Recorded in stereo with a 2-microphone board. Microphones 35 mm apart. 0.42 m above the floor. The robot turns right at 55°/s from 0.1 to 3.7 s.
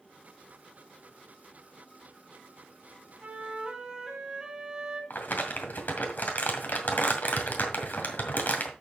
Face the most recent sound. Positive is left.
turn(degrees=60)  # may be behind; listen again after turning